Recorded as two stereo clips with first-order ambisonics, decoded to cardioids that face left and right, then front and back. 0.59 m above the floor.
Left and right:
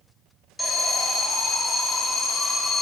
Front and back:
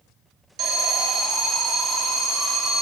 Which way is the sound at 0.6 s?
Straight behind.